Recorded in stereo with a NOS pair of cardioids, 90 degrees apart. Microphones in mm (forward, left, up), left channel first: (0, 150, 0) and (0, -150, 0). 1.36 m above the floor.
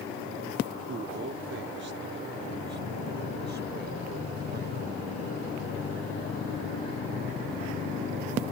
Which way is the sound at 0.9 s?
40° right.